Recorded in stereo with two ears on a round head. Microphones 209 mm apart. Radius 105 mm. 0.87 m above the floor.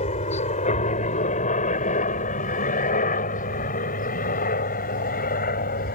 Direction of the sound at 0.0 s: 30° left (ahead or behind).